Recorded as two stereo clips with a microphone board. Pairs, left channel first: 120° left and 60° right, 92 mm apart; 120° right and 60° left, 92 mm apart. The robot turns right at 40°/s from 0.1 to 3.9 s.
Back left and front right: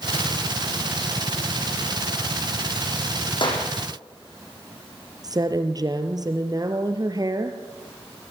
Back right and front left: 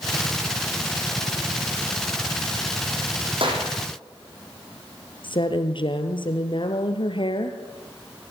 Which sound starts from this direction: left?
A clap, at 3.4 s.